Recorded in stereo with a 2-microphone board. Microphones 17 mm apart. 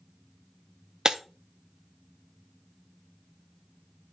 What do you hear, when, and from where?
1.1 s breaking glass: 55° right (ahead or behind), 0.6 m